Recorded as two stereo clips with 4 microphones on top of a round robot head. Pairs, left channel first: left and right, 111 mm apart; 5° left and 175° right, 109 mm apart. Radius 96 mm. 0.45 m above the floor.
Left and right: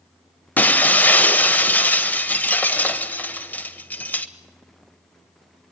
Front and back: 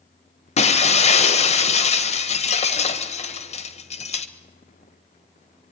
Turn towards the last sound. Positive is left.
turn(degrees=15)